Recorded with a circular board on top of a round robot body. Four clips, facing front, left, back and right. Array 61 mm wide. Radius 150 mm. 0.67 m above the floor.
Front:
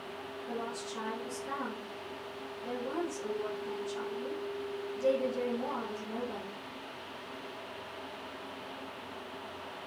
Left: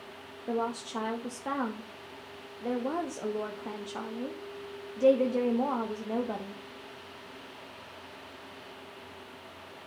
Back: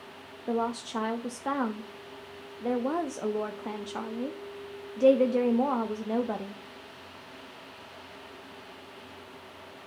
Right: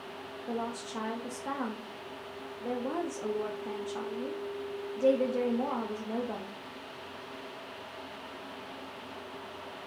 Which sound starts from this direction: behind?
A woman speaking, at 0.5 s.